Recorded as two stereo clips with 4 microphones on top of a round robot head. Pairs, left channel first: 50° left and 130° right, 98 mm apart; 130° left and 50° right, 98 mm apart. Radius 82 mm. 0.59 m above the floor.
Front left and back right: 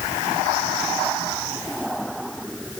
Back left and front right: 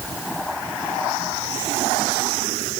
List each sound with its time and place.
Only background noise.